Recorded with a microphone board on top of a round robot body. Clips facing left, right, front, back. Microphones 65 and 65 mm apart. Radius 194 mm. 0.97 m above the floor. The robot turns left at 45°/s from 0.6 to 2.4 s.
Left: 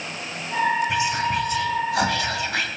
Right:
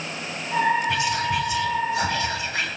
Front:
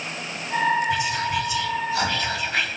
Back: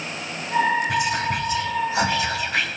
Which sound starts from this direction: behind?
Whispering, at 0.9 s.